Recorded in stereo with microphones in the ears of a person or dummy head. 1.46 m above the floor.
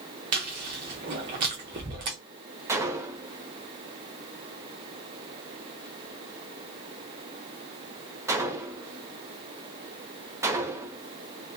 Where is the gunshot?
15° right (ahead or behind), 0.5 m.